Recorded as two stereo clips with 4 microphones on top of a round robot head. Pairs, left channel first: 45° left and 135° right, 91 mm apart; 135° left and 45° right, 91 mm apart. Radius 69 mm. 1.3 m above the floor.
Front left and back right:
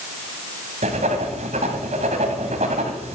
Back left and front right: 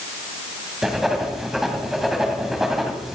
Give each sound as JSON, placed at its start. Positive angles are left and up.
{"t": 0.8, "sound": "writing", "azimuth_deg": -135, "distance_m": 1.9}